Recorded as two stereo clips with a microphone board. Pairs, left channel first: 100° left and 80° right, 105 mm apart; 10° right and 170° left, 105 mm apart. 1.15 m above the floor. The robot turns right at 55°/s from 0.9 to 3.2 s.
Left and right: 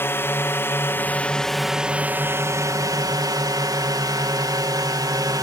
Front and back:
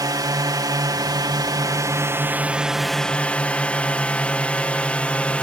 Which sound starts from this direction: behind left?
A drone, at 0.0 s.